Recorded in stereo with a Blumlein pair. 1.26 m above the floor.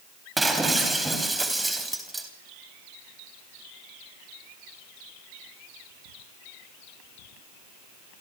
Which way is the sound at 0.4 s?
5° right.